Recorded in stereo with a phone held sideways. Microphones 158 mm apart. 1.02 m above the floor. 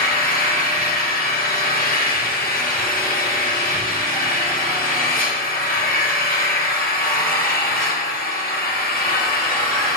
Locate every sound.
0.0 s an engine running: 75° left (ahead or behind), 2.5 m